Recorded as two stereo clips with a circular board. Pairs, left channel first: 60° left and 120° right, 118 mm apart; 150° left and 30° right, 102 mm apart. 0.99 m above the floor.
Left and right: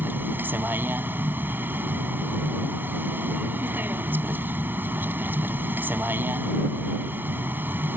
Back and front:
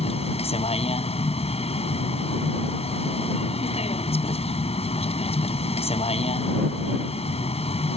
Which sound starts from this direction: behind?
A vehicle, at 0.0 s.